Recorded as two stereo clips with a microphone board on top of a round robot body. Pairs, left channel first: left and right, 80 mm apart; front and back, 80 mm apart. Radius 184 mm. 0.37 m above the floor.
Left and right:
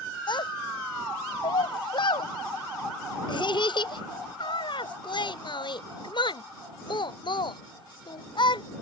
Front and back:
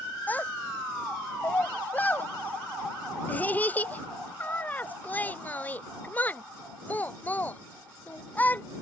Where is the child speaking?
70° left.